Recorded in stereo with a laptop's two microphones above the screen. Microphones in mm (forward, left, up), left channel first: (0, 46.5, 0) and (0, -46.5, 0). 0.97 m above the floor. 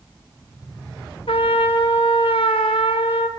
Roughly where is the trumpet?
Left.